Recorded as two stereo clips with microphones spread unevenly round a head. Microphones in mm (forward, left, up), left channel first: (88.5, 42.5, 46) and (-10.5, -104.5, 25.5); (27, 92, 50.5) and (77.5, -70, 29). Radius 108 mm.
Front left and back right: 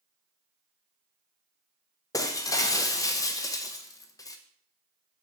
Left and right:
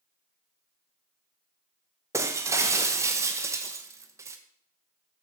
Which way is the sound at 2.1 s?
Straight ahead.